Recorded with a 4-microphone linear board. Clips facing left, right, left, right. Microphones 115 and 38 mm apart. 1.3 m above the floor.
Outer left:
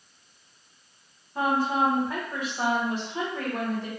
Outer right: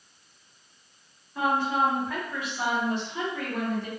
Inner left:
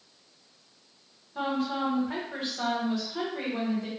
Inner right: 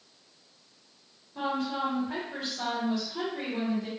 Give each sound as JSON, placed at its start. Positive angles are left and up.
{"t": 1.4, "sound": "a woman speaking", "side_deg": 35, "distance_m": 1.0}